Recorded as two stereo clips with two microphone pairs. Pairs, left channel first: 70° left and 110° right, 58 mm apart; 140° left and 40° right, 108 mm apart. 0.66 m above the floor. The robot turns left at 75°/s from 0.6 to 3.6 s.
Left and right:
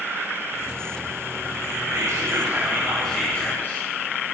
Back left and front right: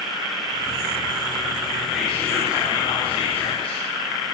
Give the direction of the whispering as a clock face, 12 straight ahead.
4 o'clock.